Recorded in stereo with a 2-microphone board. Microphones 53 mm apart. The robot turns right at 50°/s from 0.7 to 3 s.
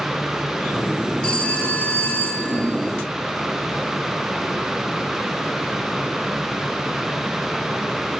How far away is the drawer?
I don't hear a drawer.